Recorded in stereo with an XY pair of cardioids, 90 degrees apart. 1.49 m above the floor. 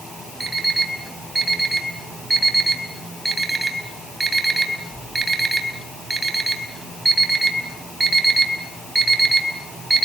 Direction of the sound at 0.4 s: 15° right.